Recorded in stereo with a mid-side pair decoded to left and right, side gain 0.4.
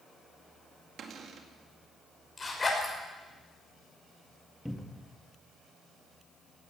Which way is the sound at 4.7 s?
Straight ahead.